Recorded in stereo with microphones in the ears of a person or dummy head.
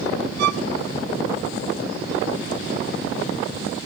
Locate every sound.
0.4 s a violin: 55° right (ahead or behind), 0.8 m